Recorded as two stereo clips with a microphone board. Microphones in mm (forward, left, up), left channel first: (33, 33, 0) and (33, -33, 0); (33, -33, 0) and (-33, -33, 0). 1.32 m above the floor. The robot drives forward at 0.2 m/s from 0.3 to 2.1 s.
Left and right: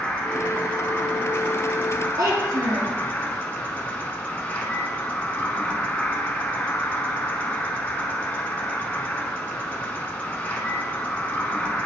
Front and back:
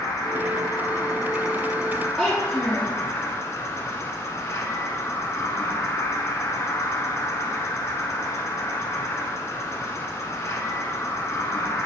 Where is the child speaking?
95° right, 1.1 m.